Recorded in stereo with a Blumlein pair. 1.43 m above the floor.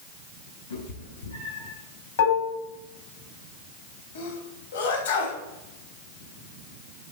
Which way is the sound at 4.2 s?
60° left.